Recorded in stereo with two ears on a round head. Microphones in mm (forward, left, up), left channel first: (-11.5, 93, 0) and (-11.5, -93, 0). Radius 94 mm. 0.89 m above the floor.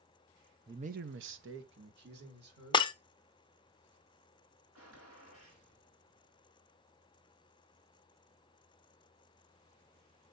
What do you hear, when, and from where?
0.7 s a man speaking: 15° right (ahead or behind), 0.6 m; by 2.9 s 45° right (ahead or behind), 3 m
2.7 s breaking glass: 25° left (ahead or behind), 0.5 m
4.8 s a gunshot: 80° right, 5 m